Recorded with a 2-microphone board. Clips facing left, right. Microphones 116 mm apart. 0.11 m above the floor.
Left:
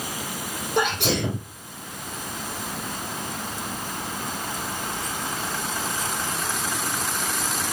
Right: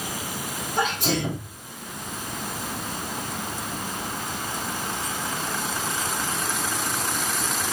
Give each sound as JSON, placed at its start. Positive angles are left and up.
{"t": 0.8, "sound": "a sneeze", "side_deg": 65, "distance_m": 4.0}